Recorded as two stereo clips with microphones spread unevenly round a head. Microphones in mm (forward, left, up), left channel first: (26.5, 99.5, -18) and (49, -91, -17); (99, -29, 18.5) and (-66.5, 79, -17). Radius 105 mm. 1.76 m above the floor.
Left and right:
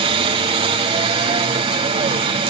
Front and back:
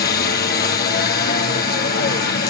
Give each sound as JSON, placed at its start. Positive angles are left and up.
{"t": 0.0, "sound": "a helicopter", "azimuth_deg": -45}